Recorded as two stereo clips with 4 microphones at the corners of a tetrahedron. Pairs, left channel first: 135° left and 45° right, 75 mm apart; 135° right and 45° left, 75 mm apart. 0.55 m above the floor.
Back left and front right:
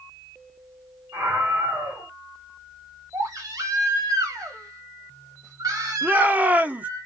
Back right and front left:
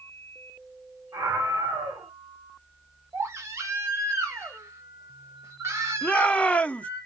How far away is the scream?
About 3.5 m.